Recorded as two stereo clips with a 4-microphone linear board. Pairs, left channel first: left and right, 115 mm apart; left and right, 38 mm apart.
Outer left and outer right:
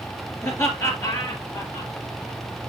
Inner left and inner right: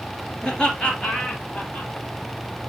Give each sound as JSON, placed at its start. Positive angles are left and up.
{"t": 0.4, "sound": "laughter", "side_deg": 20, "distance_m": 2.5}